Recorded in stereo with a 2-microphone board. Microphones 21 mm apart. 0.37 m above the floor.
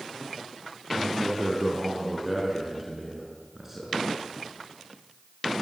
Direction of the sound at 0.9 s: 5° left (ahead or behind).